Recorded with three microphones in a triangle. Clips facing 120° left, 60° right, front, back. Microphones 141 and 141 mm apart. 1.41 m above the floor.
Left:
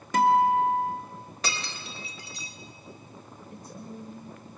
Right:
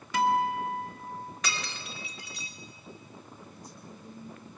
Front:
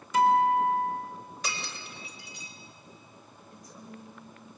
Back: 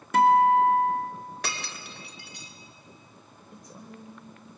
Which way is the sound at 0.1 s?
160° left.